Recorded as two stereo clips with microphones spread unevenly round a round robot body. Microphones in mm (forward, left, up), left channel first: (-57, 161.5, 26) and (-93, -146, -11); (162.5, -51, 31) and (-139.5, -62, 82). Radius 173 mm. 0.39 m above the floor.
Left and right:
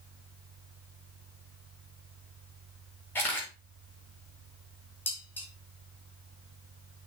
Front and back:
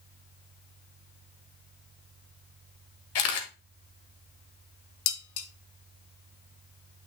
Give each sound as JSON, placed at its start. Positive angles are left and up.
{"t": 3.1, "sound": "a camera shutter", "azimuth_deg": -5, "distance_m": 1.7}
{"t": 5.1, "sound": "dishes clattering", "azimuth_deg": -5, "distance_m": 1.2}